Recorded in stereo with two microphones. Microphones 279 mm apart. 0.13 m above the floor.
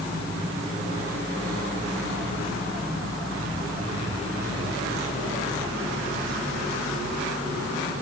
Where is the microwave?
I don't hear a microwave.